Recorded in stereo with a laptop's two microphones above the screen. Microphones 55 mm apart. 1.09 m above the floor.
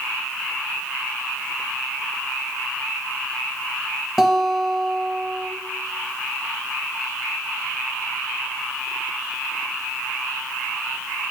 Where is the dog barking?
No dog barking in this recording.